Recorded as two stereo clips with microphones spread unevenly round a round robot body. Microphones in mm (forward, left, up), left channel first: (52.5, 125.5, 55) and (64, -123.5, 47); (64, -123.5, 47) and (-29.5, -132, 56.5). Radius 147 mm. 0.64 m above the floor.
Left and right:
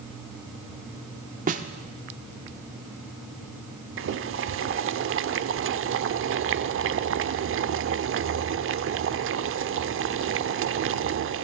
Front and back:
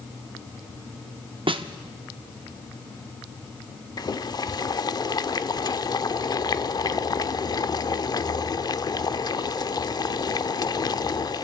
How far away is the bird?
I don't hear a bird.